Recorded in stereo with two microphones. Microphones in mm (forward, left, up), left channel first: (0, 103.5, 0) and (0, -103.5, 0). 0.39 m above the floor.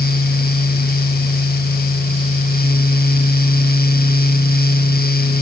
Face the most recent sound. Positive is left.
No sound to turn to.